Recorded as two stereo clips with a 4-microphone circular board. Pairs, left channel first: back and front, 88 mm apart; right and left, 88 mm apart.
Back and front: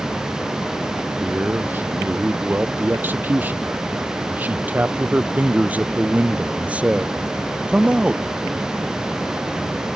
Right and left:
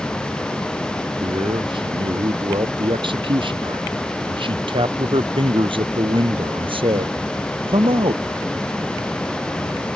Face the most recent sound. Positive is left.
turn(degrees=80)